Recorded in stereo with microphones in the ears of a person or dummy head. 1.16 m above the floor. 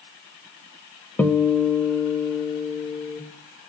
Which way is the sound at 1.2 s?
5° left (ahead or behind).